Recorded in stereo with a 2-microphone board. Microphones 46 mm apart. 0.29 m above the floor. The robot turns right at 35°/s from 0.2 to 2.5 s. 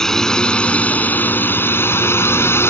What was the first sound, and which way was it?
A drone, 15° left.